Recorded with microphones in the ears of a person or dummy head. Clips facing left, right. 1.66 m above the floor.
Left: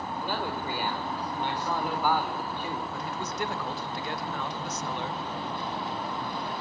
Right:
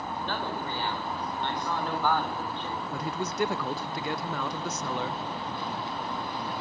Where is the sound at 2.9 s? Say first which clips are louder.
Right 3 dB; 70° right (ahead or behind), 0.9 m.